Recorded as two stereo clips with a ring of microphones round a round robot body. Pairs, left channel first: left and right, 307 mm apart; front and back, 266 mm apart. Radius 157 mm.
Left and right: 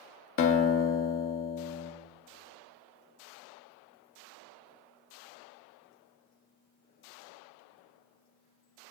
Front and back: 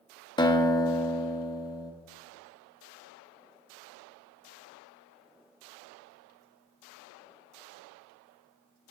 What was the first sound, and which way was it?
A guitar, 70° left.